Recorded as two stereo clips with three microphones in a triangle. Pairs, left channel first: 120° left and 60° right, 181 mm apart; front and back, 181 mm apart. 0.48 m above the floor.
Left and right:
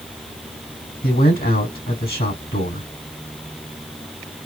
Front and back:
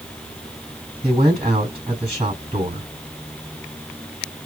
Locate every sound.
1.0 s a man speaking: 125° left, 3 m